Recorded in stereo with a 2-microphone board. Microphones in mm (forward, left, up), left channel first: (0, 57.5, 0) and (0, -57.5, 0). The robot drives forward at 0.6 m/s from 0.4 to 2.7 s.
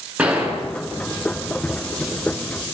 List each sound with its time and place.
0.2 s a gunshot: 10° right (ahead or behind), 8.5 m